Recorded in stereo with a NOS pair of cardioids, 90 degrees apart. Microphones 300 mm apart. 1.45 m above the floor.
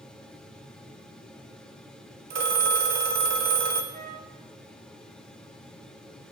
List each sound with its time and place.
0.0 s a fan: 5° left, 2.5 m
2.3 s a phone ringing: 65° right, 1.9 m
3.9 s a flute: 55° right, 6.5 m